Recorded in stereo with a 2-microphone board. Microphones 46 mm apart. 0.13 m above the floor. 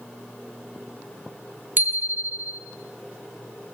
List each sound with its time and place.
1.8 s a bicycle bell: 45° right (ahead or behind), 3 m